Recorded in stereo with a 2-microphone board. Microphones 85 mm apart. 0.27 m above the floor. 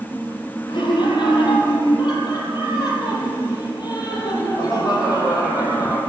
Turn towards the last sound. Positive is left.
turn(degrees=45)  # may be behind; listen again after turning